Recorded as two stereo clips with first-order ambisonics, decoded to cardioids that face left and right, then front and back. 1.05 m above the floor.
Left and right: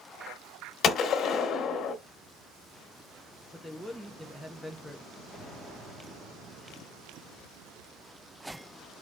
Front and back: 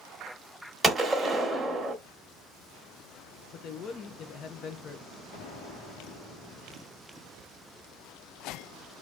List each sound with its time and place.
0.8 s a gunshot: 105° left, 1.0 m
3.5 s a man speaking: 5° left, 0.6 m
5.3 s an explosion: straight ahead, 1.8 m